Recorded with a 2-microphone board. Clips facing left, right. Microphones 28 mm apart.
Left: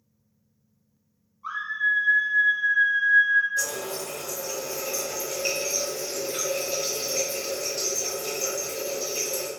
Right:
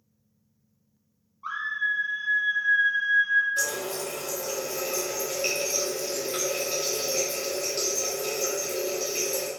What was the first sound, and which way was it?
A scream, 30° right (ahead or behind).